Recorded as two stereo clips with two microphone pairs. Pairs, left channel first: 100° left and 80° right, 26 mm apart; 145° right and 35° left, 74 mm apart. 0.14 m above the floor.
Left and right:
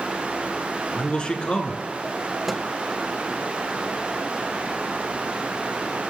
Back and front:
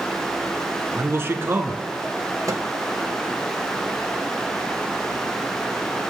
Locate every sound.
1.0 s a man speaking: 70° left, 1.7 m
2.5 s a microwave: straight ahead, 1.7 m